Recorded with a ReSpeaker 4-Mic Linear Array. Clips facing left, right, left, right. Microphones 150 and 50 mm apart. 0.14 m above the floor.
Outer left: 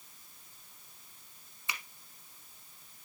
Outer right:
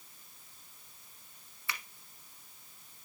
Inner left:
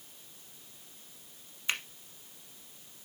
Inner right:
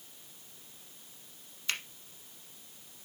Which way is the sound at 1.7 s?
20° left (ahead or behind).